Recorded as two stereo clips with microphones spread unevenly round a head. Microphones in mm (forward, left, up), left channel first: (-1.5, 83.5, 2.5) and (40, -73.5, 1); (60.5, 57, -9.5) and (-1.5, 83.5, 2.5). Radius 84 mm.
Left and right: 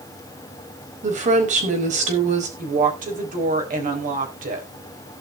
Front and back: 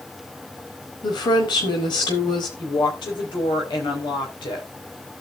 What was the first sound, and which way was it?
A woman speaking, 30° right.